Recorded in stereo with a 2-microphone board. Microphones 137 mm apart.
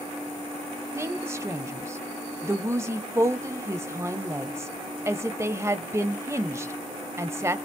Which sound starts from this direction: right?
A woman speaking, at 0.9 s.